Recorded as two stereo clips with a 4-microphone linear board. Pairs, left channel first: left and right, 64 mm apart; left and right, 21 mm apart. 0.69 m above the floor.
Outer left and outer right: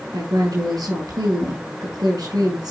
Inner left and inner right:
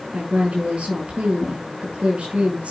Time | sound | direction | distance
0.1 | a woman speaking | 75° right (ahead or behind) | 6 m